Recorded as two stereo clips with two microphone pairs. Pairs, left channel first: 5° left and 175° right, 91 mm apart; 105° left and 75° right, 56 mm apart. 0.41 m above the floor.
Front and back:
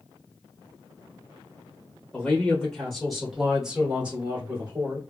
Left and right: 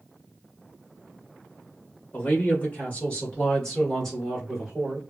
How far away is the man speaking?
About 1.8 m.